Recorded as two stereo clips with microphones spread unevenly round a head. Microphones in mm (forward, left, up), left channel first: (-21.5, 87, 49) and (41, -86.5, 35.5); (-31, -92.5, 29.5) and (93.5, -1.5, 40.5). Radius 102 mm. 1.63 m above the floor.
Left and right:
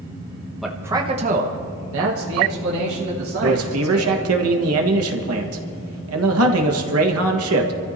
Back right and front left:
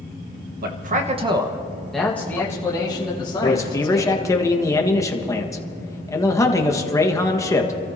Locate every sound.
0.6 s a man speaking: 20° left, 1.4 m; by 4.3 s 85° right, 4.5 m
3.4 s a man speaking: 75° right, 1.5 m